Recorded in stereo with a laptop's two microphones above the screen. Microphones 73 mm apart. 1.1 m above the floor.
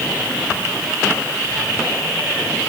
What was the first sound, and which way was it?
Only background noise.